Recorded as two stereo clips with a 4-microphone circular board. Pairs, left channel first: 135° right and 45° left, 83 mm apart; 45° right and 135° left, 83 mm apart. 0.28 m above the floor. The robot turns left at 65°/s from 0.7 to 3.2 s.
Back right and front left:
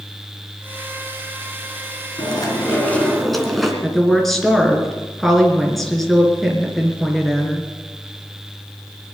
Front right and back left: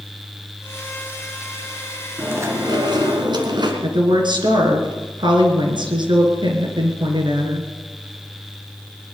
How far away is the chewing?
About 2.5 m.